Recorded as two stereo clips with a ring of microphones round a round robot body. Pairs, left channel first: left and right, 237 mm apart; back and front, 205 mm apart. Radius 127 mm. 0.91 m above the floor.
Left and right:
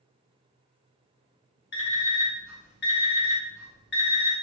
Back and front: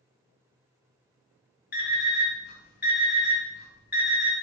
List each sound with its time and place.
1.7 s an alarm clock: 135° left, 1.2 m